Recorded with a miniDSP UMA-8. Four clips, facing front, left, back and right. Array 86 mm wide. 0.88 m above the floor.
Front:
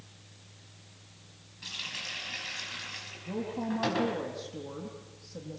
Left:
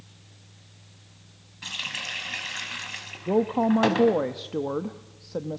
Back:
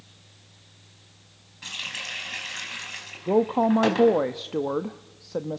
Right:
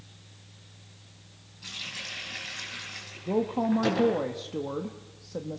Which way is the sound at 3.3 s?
160° left.